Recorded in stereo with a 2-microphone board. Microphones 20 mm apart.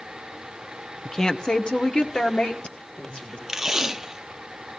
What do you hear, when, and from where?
1.1 s a woman speaking: 25° left (ahead or behind), 0.8 m; by 3.4 s 75° left (ahead or behind), 2.5 m
3.5 s tape being pulled: 25° right (ahead or behind), 0.6 m